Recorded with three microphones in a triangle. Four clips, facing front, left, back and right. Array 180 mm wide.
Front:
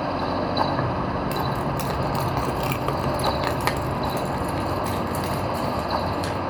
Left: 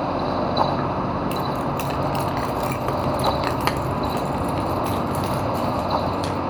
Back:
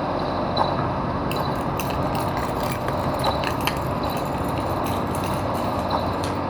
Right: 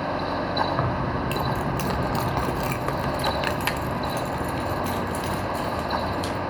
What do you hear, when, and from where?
0.8 s keys jangling: 80° right, 1.4 m; by 6.4 s 85° left, 2.5 m